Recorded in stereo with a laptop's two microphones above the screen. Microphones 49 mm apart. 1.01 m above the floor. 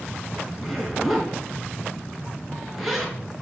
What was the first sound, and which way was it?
A zipper, centre (ahead or behind).